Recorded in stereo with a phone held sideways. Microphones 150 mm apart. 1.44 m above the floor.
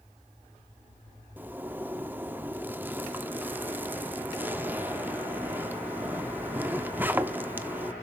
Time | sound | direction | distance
1.4 | a zipper | 10° right (ahead or behind) | 1.1 m